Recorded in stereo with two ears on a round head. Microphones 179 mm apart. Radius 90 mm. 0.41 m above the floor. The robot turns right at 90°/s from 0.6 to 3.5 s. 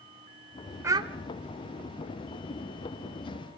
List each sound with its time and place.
0.8 s a child speaking: 15° right (ahead or behind), 0.8 m; by 1.1 s 30° right (ahead or behind), 0.8 m